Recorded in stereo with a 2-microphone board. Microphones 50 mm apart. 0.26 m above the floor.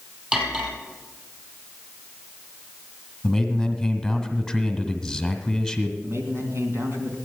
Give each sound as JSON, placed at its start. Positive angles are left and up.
{"t": 0.3, "sound": "cutlery clinking", "side_deg": -15, "distance_m": 4.5}
{"t": 3.2, "sound": "a man speaking", "side_deg": 0, "distance_m": 1.8}
{"t": 6.0, "sound": "a man speaking", "side_deg": -60, "distance_m": 2.5}